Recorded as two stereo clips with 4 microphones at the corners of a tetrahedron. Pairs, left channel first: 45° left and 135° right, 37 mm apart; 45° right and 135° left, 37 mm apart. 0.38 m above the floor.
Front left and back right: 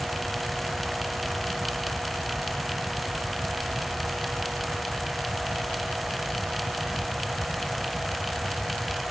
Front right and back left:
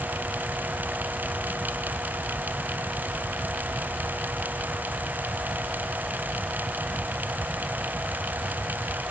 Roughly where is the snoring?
No snoring in this recording.